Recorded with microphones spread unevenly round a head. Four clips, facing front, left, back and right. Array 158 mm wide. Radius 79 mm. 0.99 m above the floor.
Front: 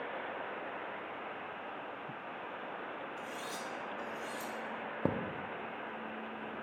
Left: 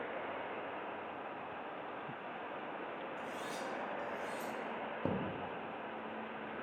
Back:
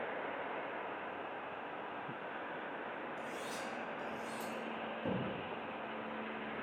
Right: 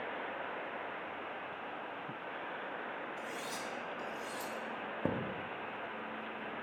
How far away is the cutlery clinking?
About 1.8 m.